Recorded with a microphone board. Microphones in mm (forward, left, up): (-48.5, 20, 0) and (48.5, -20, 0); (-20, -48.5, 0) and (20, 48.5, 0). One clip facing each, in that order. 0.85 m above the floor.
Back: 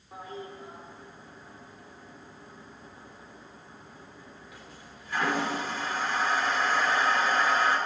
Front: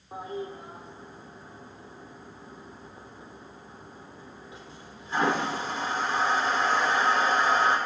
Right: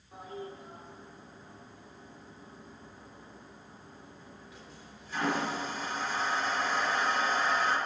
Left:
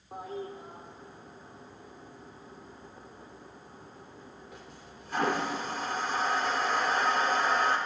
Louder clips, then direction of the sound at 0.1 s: Front 5 dB, left 4 dB; 40° left.